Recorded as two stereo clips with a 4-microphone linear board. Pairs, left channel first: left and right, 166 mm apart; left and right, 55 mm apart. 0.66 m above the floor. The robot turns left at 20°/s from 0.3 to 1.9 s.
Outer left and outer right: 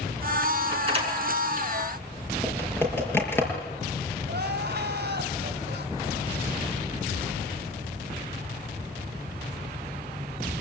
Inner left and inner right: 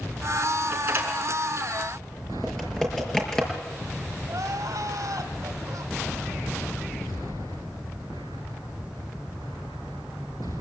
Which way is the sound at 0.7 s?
30° right (ahead or behind).